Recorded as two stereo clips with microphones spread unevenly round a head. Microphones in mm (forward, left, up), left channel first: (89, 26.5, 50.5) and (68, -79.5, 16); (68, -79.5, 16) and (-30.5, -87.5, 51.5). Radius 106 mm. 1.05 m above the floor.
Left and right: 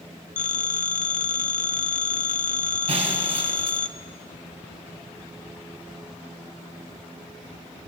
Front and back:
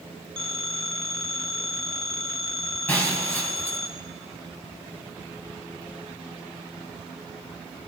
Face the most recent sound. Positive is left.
turn(degrees=-70)